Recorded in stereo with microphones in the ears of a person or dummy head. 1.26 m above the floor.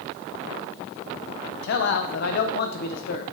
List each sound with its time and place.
1.6 s a man speaking: 50° left (ahead or behind), 0.6 m